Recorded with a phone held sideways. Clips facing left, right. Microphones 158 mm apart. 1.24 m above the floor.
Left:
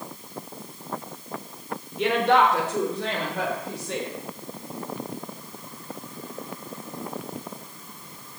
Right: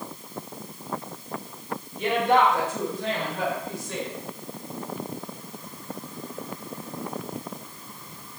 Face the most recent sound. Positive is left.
turn(degrees=70)  # may be behind; listen again after turning